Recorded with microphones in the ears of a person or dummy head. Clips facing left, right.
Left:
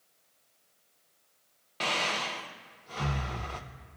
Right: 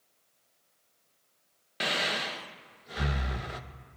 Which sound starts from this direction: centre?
Breathing, at 1.8 s.